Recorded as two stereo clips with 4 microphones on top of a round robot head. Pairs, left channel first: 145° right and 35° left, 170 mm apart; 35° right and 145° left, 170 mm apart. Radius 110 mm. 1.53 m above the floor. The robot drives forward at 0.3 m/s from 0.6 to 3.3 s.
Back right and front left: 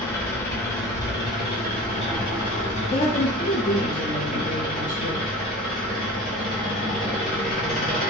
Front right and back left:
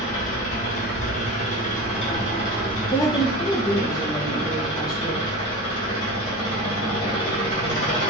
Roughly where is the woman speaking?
Right.